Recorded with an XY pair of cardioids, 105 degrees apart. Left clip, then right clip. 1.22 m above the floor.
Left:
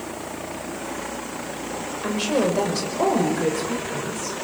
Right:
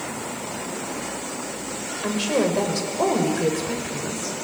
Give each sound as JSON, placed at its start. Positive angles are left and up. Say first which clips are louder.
{"t": 2.0, "sound": "a woman speaking", "louder": "even", "azimuth_deg": -5, "distance_m": 5.5}